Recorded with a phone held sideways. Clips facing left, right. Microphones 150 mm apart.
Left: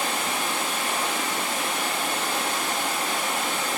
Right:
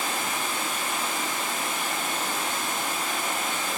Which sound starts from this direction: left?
Running water, at 0.0 s.